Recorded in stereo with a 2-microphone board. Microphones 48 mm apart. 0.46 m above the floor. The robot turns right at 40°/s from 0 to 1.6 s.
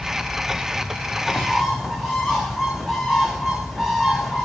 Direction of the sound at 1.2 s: 15° left (ahead or behind).